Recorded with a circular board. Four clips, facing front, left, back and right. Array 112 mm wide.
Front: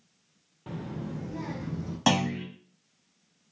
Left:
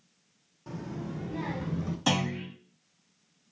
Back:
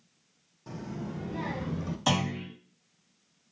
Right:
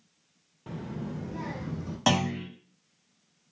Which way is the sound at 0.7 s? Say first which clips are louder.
Right 1 dB, front 1 dB; 30° right.